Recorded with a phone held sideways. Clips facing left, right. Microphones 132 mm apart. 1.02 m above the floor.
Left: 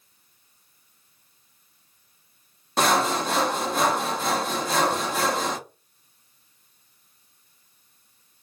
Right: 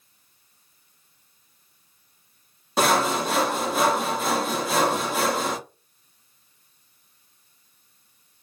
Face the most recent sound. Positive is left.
turn(degrees=-5)  # may be behind; listen again after turning